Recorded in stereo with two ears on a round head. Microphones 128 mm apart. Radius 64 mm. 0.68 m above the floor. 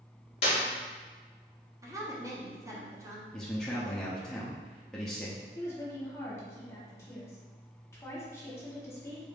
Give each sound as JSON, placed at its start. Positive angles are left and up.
{"t": 0.4, "sound": "a clap", "side_deg": 45, "distance_m": 1.0}
{"t": 1.8, "sound": "a woman speaking", "side_deg": -25, "distance_m": 0.8}
{"t": 3.3, "sound": "a man speaking", "side_deg": 5, "distance_m": 0.5}
{"t": 5.5, "sound": "a woman speaking", "side_deg": 20, "distance_m": 1.1}